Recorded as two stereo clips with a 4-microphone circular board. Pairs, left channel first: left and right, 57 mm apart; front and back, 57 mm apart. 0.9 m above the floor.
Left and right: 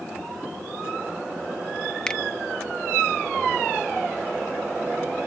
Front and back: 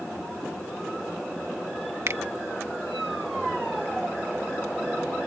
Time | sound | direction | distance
2.1 | a finger snap | 160° left | ?